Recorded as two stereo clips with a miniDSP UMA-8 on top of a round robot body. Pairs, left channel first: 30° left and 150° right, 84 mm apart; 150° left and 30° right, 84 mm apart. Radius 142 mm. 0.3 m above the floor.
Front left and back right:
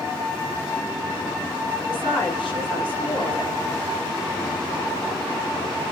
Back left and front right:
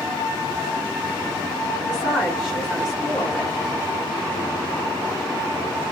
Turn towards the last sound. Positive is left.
turn(degrees=50)